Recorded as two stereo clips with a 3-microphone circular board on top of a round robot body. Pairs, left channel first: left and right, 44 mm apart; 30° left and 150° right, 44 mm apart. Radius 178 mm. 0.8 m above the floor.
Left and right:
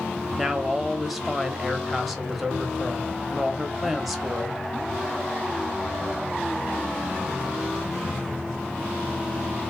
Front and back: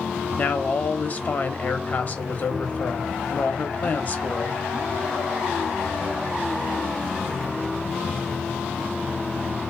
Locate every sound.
0.4 s a woman speaking: straight ahead, 1.0 m